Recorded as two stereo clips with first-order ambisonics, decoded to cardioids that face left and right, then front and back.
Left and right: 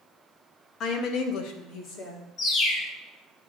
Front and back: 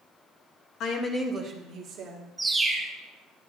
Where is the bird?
95° left, 0.8 m.